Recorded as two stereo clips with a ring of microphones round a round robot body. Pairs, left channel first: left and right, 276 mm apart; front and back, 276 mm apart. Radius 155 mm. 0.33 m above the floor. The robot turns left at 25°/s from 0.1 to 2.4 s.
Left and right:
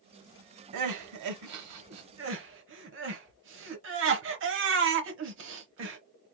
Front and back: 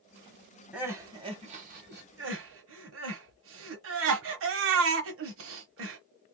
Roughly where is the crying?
Right.